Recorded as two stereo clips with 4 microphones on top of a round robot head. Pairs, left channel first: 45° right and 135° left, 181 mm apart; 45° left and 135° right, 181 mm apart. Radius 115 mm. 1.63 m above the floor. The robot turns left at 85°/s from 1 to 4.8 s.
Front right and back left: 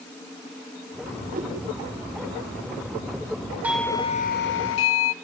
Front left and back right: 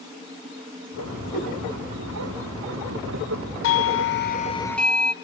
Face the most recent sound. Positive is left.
turn(degrees=-45)